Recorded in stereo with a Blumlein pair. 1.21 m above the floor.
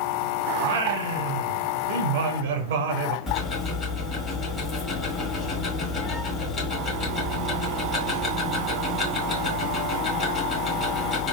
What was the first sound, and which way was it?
Singing, 55° right.